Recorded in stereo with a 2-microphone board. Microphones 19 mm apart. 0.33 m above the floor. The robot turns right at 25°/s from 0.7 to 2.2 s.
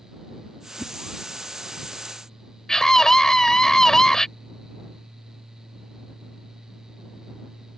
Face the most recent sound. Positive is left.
turn(degrees=30)  # may be behind; listen again after turning